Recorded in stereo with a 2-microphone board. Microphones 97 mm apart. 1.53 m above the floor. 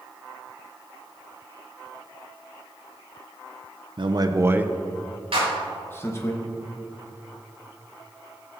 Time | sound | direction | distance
4.0 | a man speaking | 55° right (ahead or behind) | 0.6 m
5.3 | a clap | 75° right (ahead or behind) | 3.5 m